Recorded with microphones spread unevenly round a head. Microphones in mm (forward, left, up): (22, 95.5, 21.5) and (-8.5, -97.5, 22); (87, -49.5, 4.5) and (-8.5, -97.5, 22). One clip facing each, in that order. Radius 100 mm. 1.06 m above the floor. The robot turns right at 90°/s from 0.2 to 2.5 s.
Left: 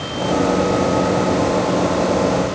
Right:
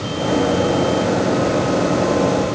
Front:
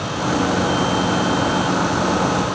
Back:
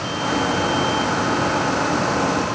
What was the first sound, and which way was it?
Only background noise.